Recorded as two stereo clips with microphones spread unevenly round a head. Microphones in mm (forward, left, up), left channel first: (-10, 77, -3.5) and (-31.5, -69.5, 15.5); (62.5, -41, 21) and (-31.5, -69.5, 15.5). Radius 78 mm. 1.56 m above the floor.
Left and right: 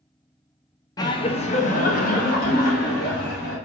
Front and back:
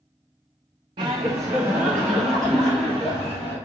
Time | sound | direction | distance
1.0 | laughter | 145° left | 0.6 m